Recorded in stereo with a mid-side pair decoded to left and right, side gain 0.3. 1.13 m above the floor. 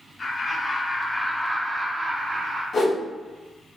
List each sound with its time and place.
0.2 s laughter: 50° left, 1.6 m; by 2.6 s 60° right, 1.3 m
2.7 s a whoosh: 55° left, 1.6 m